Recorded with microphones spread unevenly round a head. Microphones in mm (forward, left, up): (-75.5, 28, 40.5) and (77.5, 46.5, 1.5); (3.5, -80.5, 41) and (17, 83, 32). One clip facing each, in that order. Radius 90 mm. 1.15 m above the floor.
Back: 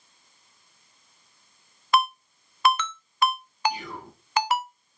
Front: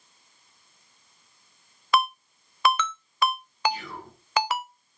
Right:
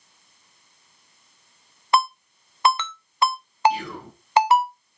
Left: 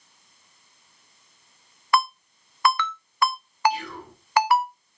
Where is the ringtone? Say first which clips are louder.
Back 1 dB, right 2 dB; 30° right, 0.6 m.